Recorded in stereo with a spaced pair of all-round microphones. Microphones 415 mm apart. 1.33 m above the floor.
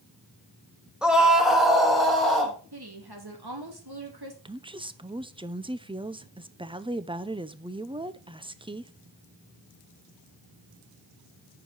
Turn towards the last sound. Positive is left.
turn(degrees=-10)  # may be behind; listen again after turning